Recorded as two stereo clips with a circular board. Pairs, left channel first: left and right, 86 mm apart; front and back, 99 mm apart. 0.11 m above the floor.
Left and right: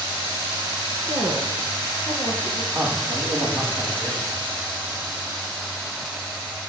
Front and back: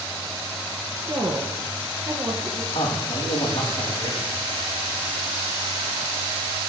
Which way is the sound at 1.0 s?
130° right.